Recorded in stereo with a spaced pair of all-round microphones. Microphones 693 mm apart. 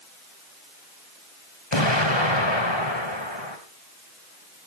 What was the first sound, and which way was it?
An explosion, 40° left (ahead or behind).